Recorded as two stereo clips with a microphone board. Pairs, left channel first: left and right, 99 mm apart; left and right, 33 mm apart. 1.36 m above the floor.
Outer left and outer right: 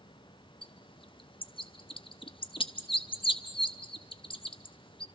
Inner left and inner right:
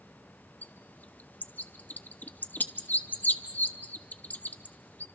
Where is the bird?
55° left (ahead or behind), 0.9 m.